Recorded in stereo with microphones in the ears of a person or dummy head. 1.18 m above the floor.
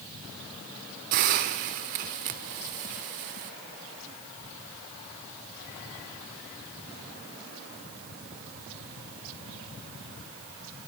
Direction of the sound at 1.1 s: 50° right (ahead or behind).